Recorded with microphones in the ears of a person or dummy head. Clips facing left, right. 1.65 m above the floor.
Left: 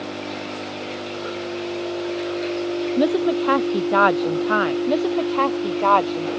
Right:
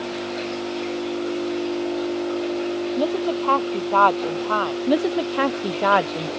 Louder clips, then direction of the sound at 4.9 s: Even; 10° right (ahead or behind).